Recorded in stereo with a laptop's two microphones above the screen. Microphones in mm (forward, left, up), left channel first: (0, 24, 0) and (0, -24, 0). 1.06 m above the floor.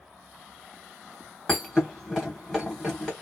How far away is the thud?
About 1.4 m.